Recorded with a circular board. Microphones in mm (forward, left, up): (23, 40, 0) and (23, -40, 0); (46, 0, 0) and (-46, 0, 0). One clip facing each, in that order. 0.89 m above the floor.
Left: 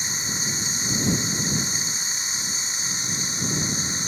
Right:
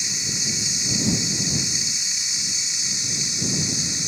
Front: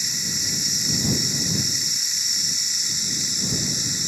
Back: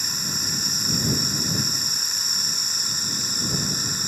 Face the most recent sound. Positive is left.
turn(degrees=140)